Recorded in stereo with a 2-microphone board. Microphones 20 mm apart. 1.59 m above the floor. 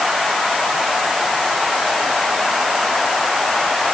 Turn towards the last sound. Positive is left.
No sound to turn to.